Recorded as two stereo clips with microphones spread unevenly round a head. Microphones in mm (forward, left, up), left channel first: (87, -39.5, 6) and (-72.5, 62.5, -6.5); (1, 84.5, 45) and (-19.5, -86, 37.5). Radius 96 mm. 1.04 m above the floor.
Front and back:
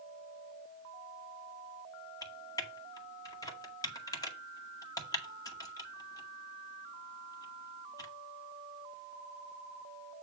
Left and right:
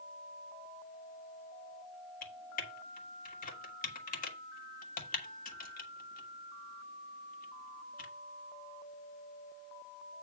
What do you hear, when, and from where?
2.2 s typing on a keyboard: 40° left, 2.0 m